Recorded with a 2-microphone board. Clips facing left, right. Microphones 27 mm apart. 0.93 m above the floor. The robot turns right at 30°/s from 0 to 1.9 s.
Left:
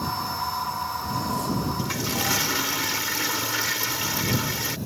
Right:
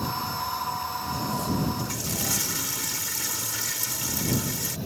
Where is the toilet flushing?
35° left (ahead or behind); by 4.8 s 30° left (ahead or behind).